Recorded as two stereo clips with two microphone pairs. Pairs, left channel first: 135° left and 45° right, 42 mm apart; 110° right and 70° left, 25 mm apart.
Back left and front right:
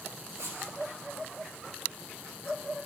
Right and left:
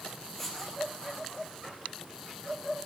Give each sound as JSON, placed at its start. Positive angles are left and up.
{"t": 0.4, "sound": "writing", "azimuth_deg": -30, "distance_m": 4.0}